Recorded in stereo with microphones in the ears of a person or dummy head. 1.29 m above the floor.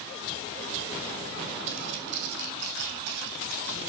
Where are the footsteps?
55° right (ahead or behind), 2.5 m; by 3.8 s 60° right (ahead or behind), 4 m.